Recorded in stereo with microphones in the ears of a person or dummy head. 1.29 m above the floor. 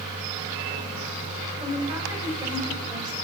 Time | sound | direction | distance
1.6 | a woman speaking | 20° right (ahead or behind) | 5.5 m